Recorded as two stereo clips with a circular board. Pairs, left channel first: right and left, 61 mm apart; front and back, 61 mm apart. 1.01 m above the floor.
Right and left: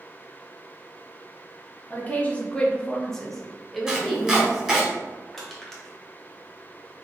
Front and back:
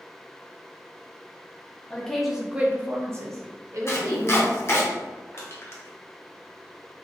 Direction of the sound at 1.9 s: 55° right.